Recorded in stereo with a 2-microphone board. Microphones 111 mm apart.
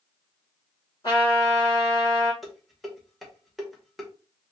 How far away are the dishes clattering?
About 0.9 m.